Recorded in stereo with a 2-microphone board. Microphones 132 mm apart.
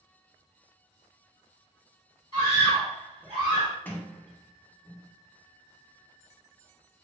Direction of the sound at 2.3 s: 35° left (ahead or behind).